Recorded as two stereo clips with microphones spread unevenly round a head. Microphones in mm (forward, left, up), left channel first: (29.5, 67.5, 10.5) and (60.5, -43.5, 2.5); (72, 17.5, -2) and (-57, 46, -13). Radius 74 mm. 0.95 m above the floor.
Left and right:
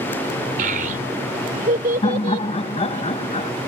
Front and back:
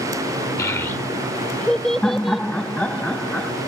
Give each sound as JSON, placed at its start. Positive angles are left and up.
{"t": 0.6, "sound": "a child speaking", "azimuth_deg": -85}
{"t": 2.0, "sound": "laughter", "azimuth_deg": 70}